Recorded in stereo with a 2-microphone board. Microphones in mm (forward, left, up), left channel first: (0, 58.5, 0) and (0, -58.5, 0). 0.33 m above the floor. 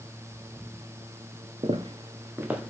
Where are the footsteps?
50° right (ahead or behind), 1.4 m; by 2.7 s 5° right (ahead or behind), 2.0 m.